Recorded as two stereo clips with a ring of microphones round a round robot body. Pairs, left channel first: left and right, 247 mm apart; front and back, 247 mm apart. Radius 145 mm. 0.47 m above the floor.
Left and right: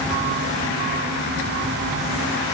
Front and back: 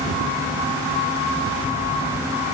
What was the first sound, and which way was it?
Only background noise.